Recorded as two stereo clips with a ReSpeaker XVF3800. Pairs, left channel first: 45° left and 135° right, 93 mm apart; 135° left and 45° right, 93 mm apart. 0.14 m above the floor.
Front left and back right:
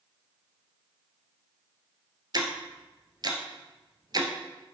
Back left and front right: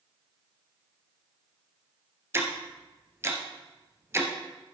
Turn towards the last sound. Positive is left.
turn(degrees=-100)